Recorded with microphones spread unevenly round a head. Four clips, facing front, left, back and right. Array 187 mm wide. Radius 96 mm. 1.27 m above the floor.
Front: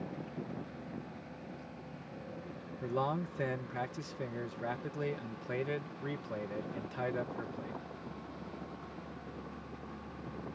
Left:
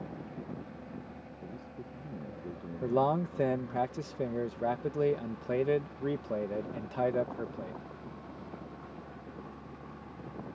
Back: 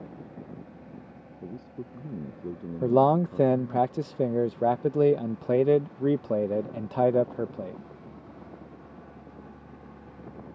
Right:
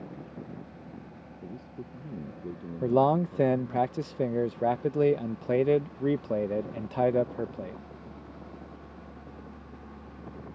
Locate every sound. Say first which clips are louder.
1.4 s a man speaking: right 4 dB, back 7 dB; 160° right
2.8 s a man speaking: right 5 dB, back 14 dB; 160° right